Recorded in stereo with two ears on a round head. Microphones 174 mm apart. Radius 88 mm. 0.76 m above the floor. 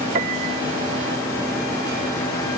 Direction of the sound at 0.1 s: 40° right (ahead or behind).